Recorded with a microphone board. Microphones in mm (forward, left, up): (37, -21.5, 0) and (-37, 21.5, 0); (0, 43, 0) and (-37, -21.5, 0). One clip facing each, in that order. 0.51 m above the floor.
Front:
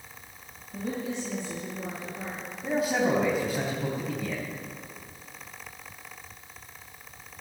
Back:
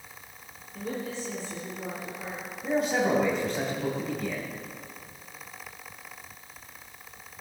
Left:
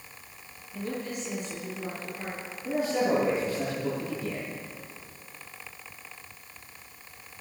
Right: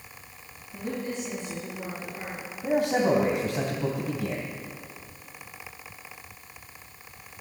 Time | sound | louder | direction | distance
0.7 | a woman speaking | front 2 dB, right 2 dB | 55° right | 8 m
2.6 | a man speaking | even, right 3 dB | 115° right | 3.5 m